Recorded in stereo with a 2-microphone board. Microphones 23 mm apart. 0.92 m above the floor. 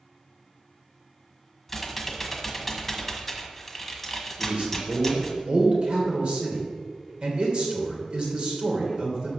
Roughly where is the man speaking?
Right.